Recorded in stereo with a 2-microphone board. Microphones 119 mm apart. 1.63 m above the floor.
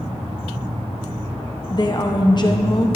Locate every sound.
1.7 s a woman speaking: 35° left (ahead or behind), 0.9 m